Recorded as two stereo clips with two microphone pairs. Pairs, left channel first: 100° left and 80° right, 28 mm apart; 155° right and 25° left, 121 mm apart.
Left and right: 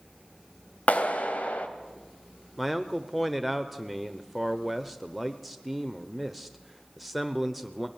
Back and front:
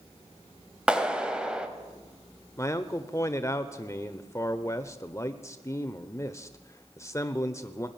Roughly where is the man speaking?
Behind.